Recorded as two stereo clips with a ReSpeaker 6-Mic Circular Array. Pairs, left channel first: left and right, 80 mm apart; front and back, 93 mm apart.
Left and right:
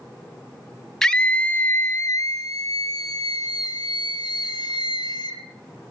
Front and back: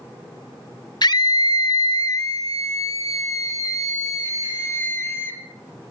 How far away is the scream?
About 1.6 m.